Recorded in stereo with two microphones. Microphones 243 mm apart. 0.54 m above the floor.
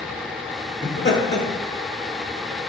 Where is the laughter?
50° left (ahead or behind), 1.9 m.